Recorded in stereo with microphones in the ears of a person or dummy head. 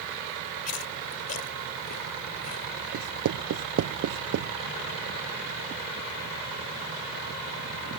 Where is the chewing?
45° left (ahead or behind).